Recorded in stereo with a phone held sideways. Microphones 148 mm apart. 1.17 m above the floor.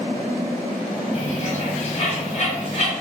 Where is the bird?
50° left (ahead or behind), 0.8 m.